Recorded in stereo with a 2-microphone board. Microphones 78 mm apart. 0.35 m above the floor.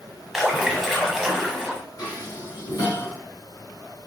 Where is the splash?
5° left (ahead or behind), 1.2 m.